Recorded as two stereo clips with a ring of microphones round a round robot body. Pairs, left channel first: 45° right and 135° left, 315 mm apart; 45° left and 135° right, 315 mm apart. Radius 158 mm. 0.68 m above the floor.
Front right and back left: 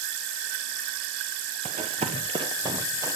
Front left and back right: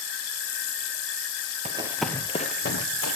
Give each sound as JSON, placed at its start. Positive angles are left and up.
{"t": 1.6, "sound": "running footsteps", "azimuth_deg": 180, "distance_m": 0.7}